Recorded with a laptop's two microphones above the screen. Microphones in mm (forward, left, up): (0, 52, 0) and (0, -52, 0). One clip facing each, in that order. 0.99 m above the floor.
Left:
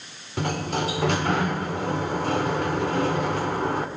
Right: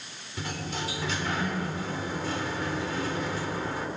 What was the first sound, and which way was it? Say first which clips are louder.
A sliding door: left 8 dB; 60° left (ahead or behind).